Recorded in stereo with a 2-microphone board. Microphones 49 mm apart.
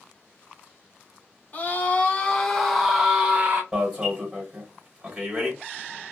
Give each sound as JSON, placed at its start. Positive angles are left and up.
{"t": 1.5, "sound": "a scream", "side_deg": 35, "distance_m": 1.0}
{"t": 3.7, "sound": "an alarm", "side_deg": -15, "distance_m": 1.8}